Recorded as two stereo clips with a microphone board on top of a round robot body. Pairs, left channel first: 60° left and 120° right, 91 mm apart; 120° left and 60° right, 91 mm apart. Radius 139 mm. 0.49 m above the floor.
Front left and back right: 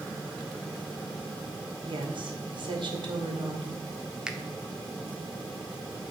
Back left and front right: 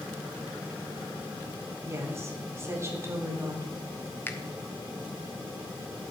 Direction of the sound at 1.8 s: 115° right.